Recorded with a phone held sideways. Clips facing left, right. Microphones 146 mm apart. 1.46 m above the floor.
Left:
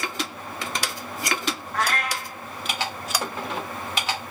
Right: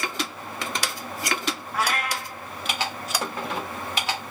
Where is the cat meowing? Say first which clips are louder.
Even; 10° right (ahead or behind), 1.0 m.